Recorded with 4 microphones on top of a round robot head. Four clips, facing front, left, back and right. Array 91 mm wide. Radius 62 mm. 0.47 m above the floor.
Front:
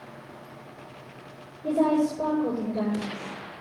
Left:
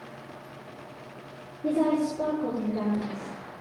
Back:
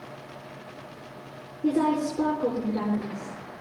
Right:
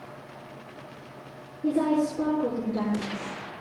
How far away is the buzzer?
I don't hear a buzzer.